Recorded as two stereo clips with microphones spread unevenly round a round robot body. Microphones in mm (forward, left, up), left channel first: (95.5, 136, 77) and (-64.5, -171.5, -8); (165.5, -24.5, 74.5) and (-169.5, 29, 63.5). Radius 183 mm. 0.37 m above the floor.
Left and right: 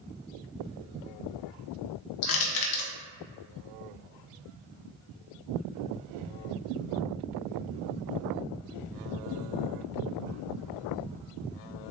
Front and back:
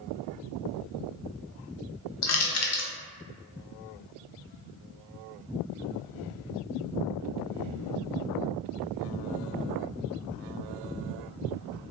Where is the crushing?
30° left, 0.6 m.